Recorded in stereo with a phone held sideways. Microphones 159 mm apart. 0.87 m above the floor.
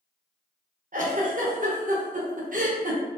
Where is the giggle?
55° right (ahead or behind), 0.7 m.